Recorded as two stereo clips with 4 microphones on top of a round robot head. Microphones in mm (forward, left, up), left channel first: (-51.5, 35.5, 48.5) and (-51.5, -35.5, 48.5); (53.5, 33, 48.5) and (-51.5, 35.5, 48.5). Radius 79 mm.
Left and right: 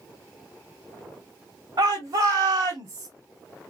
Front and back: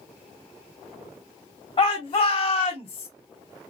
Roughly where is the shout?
Ahead right.